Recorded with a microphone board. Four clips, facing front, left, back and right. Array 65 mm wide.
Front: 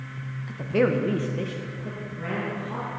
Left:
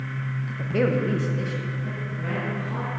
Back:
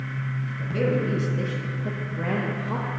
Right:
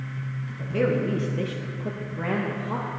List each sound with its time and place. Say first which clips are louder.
0.5 s a woman speaking: left 1 dB, front 3 dB; 25° left, 1.3 m; by 2.9 s 135° right, 2 m